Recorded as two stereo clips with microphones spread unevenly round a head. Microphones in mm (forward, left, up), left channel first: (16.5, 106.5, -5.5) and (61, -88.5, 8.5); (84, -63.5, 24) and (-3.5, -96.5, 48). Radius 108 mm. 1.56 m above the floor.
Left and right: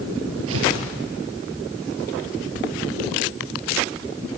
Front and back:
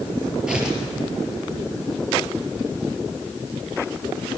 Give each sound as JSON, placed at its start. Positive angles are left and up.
{"t": 0.5, "sound": "tearing paper", "azimuth_deg": -85, "distance_m": 5.0}